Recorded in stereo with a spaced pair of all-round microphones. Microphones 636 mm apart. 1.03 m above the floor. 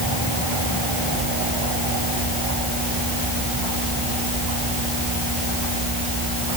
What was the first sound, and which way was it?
Only background noise.